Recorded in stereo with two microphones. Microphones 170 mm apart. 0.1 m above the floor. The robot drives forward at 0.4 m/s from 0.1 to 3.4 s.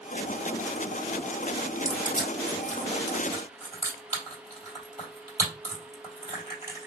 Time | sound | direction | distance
1.9 | crushing | 20° right (ahead or behind) | 2.5 m